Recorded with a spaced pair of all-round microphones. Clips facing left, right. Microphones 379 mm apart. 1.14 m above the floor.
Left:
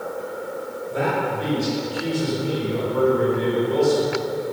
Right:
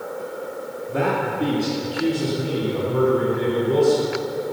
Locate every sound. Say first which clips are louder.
0.9 s a man speaking: right 1 dB; 70° right (ahead or behind), 3 m; by 4.0 s 65° right (ahead or behind), 4.5 m